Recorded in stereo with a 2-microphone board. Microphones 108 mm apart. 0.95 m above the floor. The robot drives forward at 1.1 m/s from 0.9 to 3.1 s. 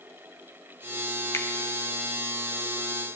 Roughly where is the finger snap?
Left.